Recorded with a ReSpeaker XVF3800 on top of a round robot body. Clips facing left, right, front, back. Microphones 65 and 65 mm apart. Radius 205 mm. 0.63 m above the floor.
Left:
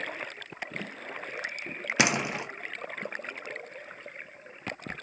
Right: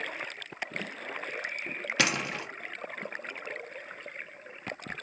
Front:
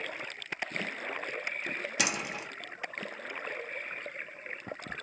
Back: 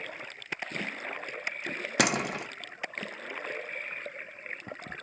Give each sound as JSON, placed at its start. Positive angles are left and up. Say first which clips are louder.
{"t": 2.0, "sound": "a door slam", "louder": "left 3 dB, back 8 dB", "azimuth_deg": 160, "distance_m": 0.8}